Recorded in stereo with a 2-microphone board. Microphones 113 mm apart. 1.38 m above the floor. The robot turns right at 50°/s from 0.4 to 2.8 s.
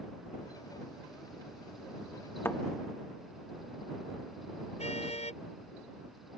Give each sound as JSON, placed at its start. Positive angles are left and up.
{"t": 2.5, "sound": "a thud", "side_deg": 20}
{"t": 4.8, "sound": "a car horn", "side_deg": 75}